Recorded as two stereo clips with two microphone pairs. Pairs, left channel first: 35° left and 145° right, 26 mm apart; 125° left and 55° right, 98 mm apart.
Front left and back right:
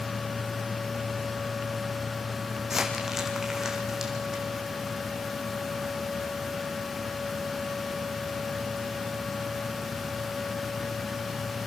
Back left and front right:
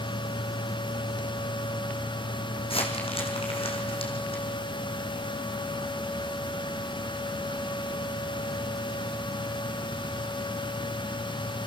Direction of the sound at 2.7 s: 145° left.